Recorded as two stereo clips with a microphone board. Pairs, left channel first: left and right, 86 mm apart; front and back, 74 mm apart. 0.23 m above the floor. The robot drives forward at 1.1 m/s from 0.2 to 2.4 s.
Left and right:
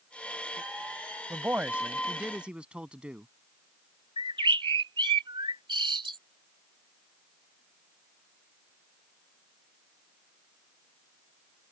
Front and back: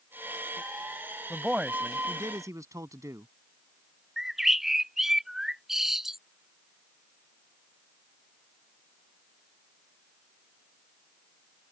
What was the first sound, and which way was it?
A man speaking, 90° right.